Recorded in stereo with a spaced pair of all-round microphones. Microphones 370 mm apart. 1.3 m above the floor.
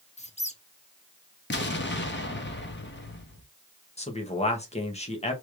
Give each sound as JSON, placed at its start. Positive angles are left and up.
{"t": 0.2, "sound": "a squeak", "side_deg": 15, "distance_m": 0.7}
{"t": 1.5, "sound": "an explosion", "side_deg": 30, "distance_m": 0.7}
{"t": 4.0, "sound": "a man speaking", "side_deg": 15, "distance_m": 1.0}